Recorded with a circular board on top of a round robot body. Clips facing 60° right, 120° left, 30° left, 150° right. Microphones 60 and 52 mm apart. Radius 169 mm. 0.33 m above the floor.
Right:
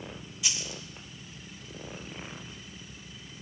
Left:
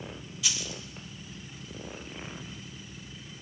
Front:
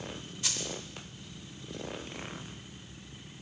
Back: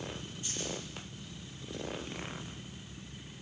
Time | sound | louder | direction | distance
0.4 | a dropped coin | left 1 dB, front 2 dB | 15° left | 0.7 m